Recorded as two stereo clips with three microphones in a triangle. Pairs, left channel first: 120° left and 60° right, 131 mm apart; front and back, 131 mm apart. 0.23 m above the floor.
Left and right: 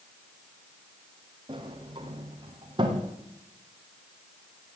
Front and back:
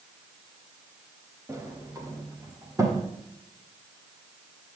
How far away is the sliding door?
About 2.5 m.